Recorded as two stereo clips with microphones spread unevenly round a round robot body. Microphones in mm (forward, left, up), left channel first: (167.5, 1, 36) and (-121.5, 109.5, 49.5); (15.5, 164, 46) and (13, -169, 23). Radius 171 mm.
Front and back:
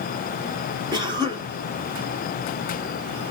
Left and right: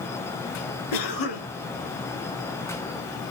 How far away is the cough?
About 2.5 m.